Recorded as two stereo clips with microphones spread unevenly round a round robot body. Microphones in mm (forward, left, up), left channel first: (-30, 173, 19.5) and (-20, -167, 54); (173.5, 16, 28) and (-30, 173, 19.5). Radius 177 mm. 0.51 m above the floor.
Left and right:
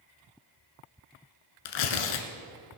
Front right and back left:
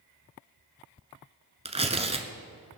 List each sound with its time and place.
1.6 s tearing paper: 75° left, 1.3 m